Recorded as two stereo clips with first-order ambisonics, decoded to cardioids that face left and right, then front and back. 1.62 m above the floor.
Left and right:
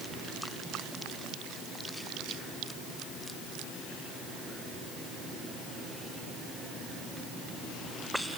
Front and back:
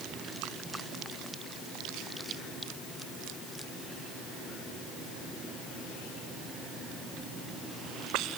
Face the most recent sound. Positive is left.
No sound to turn to.